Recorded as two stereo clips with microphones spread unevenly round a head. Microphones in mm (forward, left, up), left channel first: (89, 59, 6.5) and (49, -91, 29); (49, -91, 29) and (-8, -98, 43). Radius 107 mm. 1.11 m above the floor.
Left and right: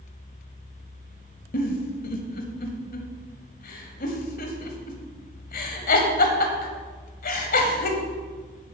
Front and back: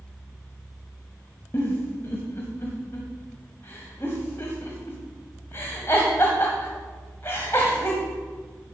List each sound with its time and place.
1.5 s a giggle: 85° left, 1.2 m